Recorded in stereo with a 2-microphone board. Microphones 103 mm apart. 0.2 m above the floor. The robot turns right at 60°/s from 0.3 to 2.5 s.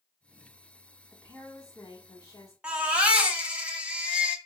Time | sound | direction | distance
1.1 | a woman speaking | 20° left | 1.2 m
2.6 | a baby crying | 10° right (ahead or behind) | 0.8 m